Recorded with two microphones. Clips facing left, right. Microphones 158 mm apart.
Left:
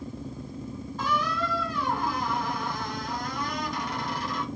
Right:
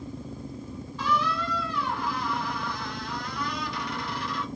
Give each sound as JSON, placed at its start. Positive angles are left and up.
{"t": 1.0, "sound": "a squeak", "side_deg": 45, "distance_m": 1.4}